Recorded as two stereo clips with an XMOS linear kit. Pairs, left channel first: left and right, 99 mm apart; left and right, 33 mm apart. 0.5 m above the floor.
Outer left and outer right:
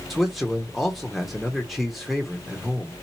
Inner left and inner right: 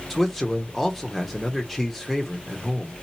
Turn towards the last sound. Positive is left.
turn(degrees=0)  # may be behind; listen again after turning